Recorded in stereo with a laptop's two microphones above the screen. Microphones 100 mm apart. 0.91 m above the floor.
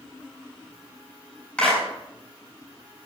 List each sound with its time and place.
1.6 s a clap: 10° left (ahead or behind), 8 m